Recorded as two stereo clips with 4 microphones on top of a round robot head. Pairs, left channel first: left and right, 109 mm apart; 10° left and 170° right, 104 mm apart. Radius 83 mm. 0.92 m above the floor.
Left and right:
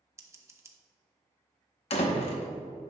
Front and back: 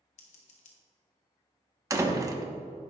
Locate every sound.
0.2 s scissors: 25° right, 1.2 m
1.9 s a door slam: 130° left, 1.1 m